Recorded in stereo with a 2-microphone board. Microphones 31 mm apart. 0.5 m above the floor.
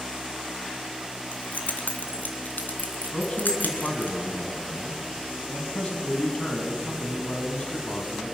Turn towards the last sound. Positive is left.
turn(degrees=40)  # may be behind; listen again after turning